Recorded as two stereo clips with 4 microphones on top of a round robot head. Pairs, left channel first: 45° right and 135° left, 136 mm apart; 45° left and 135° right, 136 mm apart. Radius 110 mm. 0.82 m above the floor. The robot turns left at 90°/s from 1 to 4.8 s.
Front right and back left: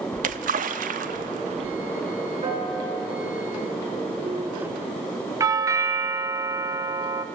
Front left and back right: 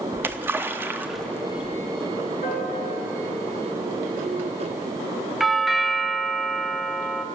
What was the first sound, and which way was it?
A splash, 150° left.